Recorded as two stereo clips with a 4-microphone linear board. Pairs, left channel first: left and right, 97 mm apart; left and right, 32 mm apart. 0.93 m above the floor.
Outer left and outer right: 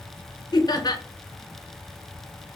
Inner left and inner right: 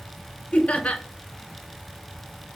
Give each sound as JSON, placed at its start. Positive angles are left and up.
{"t": 0.5, "sound": "laughter", "side_deg": 40, "distance_m": 0.5}